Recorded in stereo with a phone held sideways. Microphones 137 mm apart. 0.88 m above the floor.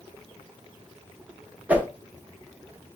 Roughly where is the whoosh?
Centre.